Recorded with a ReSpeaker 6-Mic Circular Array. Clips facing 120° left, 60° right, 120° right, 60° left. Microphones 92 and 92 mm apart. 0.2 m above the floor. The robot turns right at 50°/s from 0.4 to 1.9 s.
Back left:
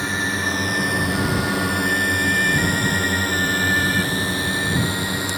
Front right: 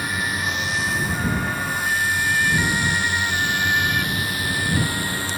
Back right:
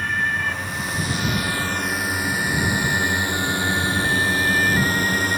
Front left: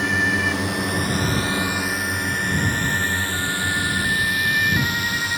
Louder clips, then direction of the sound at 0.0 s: Back left 2 dB, front left 2 dB; 55° left.